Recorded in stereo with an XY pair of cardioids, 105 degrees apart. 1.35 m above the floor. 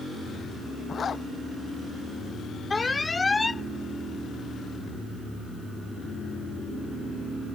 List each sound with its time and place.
0.9 s a zipper: 40° left
2.7 s an alarm: 20° left